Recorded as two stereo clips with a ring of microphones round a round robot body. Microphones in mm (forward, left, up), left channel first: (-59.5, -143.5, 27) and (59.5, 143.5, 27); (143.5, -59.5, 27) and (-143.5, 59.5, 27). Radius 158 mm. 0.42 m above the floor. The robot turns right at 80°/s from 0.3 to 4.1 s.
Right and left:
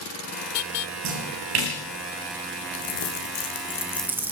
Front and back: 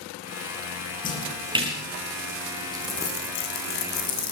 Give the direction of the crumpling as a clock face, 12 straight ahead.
4 o'clock.